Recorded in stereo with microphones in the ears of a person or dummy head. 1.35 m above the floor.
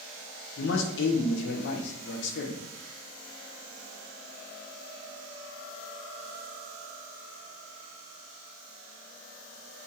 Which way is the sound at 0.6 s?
70° left (ahead or behind).